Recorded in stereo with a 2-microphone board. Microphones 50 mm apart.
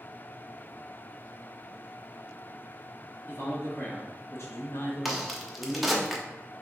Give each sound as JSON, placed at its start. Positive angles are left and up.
{"t": 3.3, "sound": "a man speaking", "side_deg": 50, "distance_m": 1.7}
{"t": 5.0, "sound": "a crack", "side_deg": 0, "distance_m": 0.7}